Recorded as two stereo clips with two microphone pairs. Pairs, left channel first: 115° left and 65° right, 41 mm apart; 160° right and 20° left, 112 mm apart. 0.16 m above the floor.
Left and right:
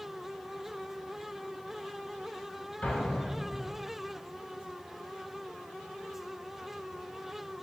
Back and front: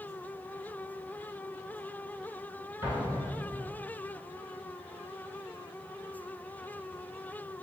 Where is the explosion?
85° left, 1.6 m.